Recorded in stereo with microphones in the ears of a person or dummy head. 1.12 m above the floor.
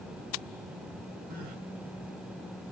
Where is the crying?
50° right (ahead or behind), 2.5 m.